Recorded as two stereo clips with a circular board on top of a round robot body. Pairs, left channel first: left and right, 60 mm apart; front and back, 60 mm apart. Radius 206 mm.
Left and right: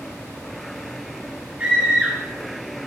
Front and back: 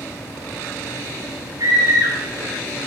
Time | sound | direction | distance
1.6 | a scream | 160° right | 2.5 m